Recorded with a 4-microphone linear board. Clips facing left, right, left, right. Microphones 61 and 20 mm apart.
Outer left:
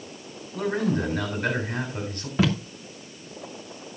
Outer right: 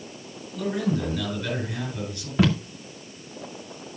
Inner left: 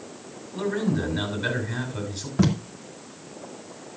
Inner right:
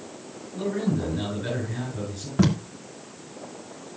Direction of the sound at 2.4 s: Centre (ahead or behind).